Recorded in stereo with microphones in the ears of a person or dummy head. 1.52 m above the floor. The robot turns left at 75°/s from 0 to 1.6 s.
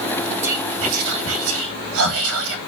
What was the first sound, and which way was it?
Whispering, 15° right (ahead or behind).